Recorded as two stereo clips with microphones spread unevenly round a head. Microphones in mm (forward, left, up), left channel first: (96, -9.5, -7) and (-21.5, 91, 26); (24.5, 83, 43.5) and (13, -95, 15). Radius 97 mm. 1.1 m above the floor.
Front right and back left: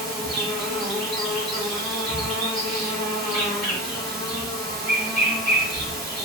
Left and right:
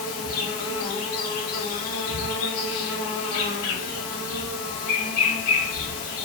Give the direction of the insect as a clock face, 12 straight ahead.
11 o'clock.